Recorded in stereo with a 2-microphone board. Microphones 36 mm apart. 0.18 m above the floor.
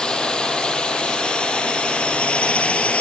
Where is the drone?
25° left (ahead or behind); by 3.0 s 40° left (ahead or behind).